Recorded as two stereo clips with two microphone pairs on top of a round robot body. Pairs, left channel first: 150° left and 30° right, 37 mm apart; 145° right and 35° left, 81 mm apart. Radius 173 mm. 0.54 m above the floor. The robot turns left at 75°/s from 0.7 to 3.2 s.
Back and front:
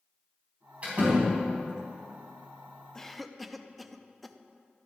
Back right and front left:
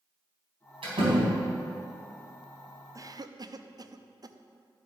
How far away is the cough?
About 0.8 m.